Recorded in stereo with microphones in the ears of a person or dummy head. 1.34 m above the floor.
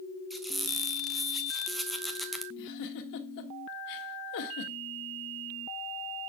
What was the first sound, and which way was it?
A squeak, centre (ahead or behind).